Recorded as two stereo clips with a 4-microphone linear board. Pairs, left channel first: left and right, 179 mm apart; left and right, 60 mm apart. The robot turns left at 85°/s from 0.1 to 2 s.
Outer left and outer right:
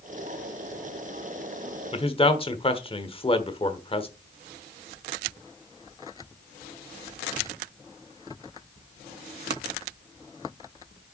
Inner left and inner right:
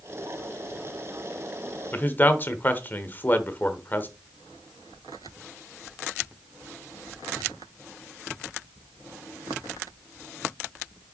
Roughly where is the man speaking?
Left.